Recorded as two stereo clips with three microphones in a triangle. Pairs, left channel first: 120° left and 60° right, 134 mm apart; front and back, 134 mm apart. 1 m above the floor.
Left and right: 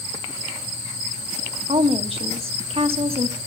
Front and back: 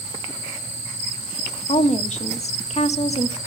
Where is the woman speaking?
25° right, 1.4 m.